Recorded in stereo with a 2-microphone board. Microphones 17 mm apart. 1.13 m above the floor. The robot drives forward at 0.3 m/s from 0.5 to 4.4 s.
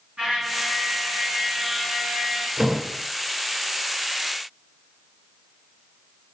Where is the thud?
50° right (ahead or behind), 1.8 m; by 2.8 s 45° right (ahead or behind), 1.8 m.